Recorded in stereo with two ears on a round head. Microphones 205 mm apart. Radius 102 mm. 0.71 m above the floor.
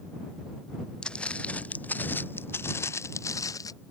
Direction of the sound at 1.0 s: 5° left (ahead or behind).